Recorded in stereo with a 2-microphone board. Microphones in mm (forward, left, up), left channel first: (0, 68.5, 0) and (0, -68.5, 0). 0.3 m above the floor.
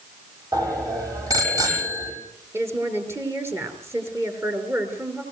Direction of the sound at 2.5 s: 20° right (ahead or behind).